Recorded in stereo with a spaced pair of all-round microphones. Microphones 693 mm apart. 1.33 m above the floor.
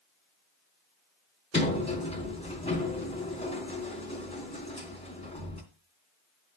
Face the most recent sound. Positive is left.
turn(degrees=10)  # may be behind; listen again after turning